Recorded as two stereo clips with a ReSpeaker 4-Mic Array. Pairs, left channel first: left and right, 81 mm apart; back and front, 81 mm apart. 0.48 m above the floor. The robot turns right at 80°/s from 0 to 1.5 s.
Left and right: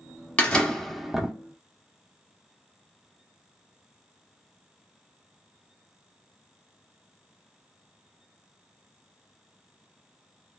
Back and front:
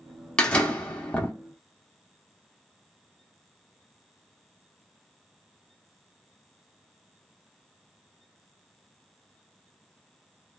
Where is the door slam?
130° left, 0.9 m; by 1.3 s 155° right, 0.9 m.